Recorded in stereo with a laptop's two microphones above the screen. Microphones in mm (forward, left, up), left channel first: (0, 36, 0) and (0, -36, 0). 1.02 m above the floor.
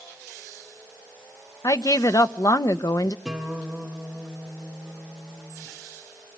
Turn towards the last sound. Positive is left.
turn(degrees=-5)  # may be behind; listen again after turning